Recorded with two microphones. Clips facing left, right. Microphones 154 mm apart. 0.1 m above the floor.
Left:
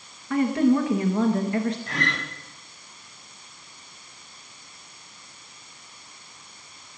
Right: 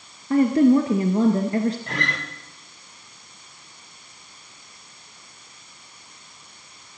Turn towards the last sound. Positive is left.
turn(degrees=-60)  # may be behind; listen again after turning